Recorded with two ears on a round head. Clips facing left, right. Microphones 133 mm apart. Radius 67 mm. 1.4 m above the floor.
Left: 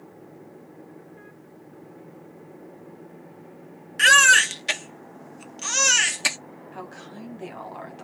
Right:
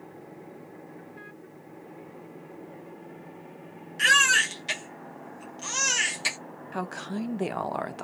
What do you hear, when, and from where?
4.0 s a baby crying: 65° left (ahead or behind), 0.9 m
6.7 s a woman speaking: 60° right (ahead or behind), 0.7 m